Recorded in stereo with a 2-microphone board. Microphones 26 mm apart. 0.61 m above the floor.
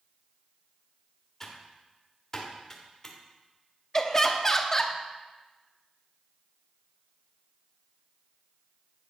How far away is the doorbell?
No doorbell in this recording.